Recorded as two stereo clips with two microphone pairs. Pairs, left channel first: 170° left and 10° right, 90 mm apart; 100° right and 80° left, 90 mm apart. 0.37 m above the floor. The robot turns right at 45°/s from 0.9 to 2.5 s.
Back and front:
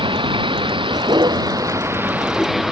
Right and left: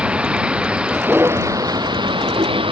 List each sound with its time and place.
0.0 s a vehicle: 5° left; by 2.7 s 75° left